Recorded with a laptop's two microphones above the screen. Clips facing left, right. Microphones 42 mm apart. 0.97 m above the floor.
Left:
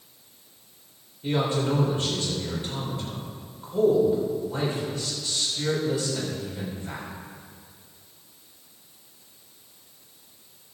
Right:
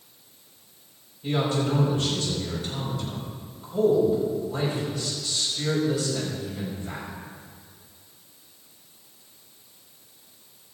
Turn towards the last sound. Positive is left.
turn(degrees=35)  # may be behind; listen again after turning